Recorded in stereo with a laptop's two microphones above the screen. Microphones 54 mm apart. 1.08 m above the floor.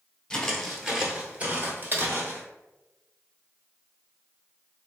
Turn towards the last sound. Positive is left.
turn(degrees=-40)  # may be behind; listen again after turning